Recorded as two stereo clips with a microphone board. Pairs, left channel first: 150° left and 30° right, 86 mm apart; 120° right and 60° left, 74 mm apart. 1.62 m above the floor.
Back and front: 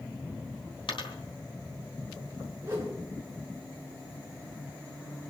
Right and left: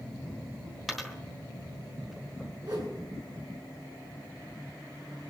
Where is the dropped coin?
150° left, 3.5 m.